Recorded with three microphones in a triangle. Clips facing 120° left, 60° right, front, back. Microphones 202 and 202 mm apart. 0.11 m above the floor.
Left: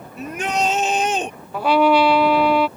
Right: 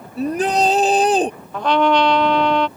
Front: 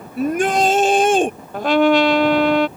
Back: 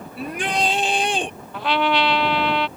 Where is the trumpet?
40° left.